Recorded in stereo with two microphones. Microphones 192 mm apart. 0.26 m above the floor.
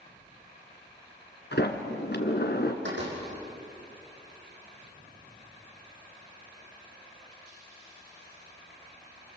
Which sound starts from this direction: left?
A sliding door, at 1.5 s.